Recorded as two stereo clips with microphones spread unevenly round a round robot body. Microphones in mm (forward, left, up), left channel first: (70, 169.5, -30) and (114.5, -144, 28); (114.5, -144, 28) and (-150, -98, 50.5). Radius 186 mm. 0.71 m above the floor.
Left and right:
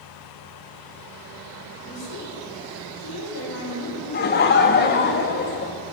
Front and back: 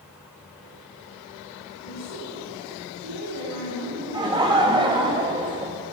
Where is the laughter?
100° left, 0.6 m.